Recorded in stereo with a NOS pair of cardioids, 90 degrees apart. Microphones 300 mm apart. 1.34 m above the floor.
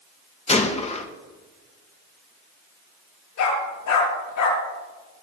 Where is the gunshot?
20° left, 1.4 m.